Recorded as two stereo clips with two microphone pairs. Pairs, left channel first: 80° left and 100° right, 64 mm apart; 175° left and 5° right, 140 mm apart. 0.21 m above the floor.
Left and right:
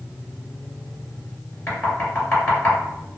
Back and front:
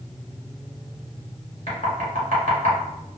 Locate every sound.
1.7 s knocking: 145° left, 1.6 m